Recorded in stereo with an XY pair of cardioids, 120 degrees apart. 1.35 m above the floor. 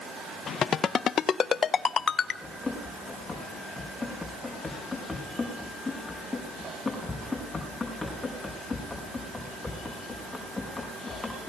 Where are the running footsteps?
15° left, 6 m.